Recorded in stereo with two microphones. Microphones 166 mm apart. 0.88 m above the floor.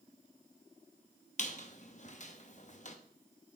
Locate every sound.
1.4 s a squeak: 45° left (ahead or behind), 0.8 m